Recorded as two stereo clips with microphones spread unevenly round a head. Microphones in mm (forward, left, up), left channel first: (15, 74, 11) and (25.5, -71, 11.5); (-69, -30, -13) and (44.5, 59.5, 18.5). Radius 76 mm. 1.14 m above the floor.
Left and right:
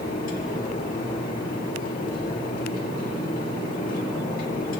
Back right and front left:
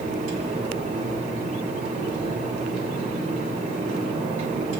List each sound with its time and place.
0.0 s a fan: 80° left, 2 m